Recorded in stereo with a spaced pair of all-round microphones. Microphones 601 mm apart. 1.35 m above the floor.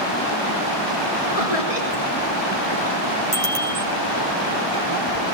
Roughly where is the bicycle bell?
Right.